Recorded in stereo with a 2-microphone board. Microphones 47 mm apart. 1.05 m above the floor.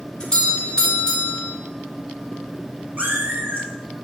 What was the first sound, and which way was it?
A doorbell, 20° left (ahead or behind).